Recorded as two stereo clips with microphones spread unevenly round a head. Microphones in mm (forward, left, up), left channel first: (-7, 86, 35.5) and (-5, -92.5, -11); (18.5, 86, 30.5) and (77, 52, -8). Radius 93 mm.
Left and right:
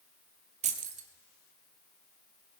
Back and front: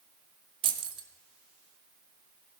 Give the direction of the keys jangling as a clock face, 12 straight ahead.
1 o'clock.